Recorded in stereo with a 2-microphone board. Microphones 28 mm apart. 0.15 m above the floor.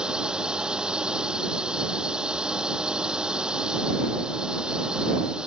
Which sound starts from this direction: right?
A drone, at 0.0 s.